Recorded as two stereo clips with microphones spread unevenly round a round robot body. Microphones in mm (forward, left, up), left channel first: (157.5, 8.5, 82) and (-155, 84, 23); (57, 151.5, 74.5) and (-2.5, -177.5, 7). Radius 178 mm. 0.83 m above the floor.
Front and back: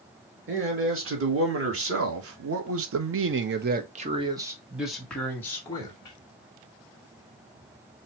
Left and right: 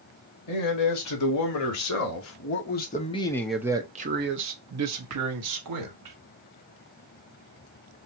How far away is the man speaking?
About 1.9 m.